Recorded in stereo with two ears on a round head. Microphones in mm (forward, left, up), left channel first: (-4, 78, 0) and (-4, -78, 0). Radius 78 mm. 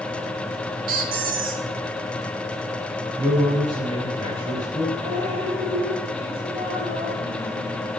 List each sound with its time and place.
0.9 s a squeak: 55° right (ahead or behind), 2.5 m
3.2 s a man speaking: 25° right (ahead or behind), 9.5 m
5.0 s dripping: 30° right (ahead or behind), 9.5 m